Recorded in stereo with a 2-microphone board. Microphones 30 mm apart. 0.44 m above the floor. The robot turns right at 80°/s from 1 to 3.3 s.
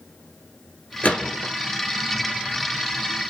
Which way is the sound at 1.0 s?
40° left (ahead or behind).